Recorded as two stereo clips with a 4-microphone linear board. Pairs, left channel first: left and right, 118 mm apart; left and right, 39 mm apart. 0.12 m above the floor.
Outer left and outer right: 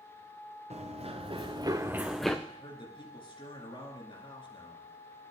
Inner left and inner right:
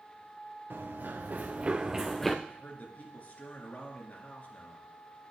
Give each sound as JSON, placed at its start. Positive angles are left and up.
{"t": 0.7, "sound": "running footsteps", "side_deg": -65, "distance_m": 1.3}
{"t": 2.5, "sound": "a man speaking", "side_deg": 45, "distance_m": 1.9}